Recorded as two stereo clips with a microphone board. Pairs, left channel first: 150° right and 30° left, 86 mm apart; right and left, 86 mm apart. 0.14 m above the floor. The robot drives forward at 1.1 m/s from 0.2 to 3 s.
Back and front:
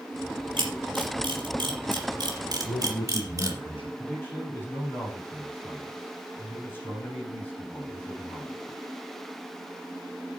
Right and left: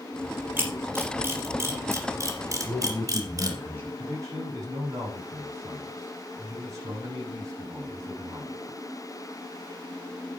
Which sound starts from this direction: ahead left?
A camera shutter, at 0.6 s.